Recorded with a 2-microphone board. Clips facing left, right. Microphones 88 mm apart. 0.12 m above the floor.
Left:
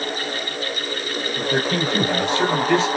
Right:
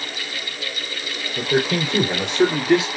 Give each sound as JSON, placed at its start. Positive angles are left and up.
{"t": 1.4, "sound": "a man speaking", "side_deg": -25, "distance_m": 3.5}